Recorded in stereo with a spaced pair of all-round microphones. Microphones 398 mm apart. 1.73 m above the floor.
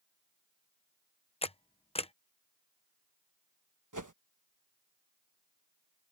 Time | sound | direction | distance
1.4 | a camera shutter | 15° left (ahead or behind) | ?
3.9 | a whoosh | 50° right (ahead or behind) | ?